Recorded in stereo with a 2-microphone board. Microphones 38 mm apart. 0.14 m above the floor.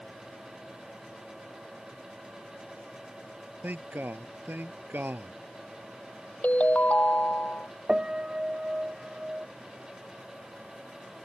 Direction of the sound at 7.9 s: 25° right (ahead or behind).